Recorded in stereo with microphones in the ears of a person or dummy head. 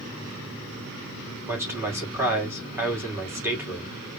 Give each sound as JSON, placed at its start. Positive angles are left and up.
{"t": 1.5, "sound": "a man speaking", "side_deg": -10, "distance_m": 2.0}